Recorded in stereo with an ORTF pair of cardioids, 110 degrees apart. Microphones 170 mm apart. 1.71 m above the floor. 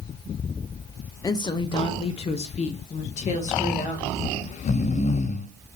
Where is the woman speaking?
20° left, 1.0 m; by 4.1 s 45° left, 3 m.